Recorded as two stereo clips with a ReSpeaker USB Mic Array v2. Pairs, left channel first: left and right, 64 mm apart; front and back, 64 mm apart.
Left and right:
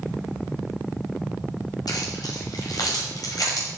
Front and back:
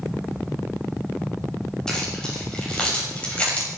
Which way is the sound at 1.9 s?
80° left.